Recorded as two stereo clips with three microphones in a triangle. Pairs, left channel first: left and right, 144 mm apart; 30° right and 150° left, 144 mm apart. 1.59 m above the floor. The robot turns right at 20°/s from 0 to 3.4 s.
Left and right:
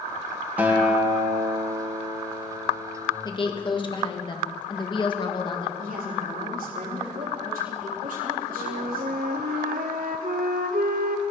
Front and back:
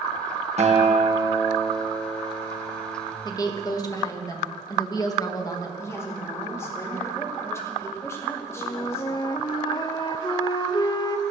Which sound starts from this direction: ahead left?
A woman speaking, at 3.2 s.